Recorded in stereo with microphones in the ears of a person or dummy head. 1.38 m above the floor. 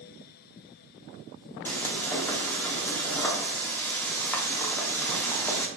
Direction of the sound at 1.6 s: 15° left (ahead or behind).